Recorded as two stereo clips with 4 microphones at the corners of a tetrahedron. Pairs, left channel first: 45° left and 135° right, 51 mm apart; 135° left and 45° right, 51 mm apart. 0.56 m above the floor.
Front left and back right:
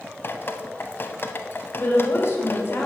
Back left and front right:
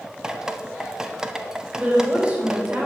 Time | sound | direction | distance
0.2 | dripping | 30° left | 0.5 m
1.8 | a woman speaking | 20° left | 2 m